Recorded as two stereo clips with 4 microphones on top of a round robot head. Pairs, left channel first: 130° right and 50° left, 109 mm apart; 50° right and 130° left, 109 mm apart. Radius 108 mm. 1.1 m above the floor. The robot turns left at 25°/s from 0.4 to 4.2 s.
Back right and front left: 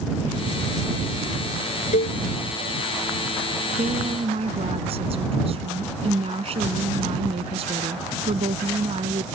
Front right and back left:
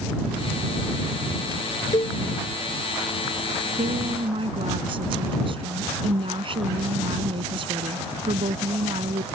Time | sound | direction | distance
1.9 | a cowbell | 110° right | ?
3.8 | a woman speaking | 100° left | ?